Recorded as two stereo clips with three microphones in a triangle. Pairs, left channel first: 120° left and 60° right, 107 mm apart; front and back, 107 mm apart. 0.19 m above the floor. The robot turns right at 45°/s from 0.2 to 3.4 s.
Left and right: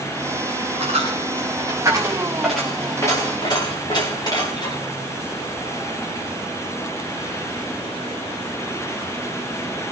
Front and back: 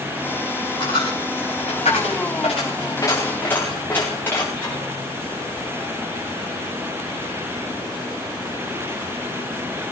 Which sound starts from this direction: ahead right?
A dropped coin, at 0.8 s.